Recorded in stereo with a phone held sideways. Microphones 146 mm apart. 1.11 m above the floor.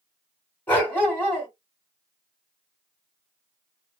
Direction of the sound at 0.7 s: 15° left (ahead or behind).